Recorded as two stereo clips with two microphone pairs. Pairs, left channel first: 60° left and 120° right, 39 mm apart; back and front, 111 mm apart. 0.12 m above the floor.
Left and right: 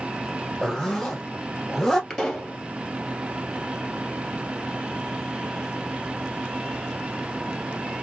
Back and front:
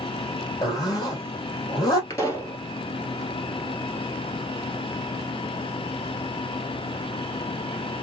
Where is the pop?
125° left, 2 m.